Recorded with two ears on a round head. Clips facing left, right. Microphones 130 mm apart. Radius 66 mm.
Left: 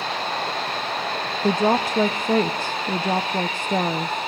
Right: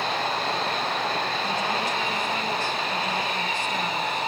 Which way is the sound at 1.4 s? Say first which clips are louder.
Left 7 dB; 40° left (ahead or behind).